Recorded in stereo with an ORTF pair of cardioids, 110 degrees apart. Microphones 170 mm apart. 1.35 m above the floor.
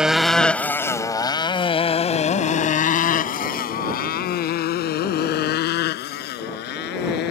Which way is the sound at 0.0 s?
5° right.